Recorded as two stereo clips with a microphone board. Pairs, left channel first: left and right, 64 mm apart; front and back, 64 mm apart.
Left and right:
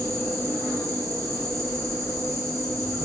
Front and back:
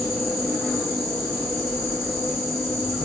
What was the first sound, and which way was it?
An insect, 100° right.